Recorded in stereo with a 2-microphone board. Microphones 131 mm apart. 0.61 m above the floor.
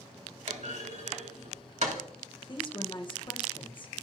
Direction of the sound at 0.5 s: 65° right (ahead or behind).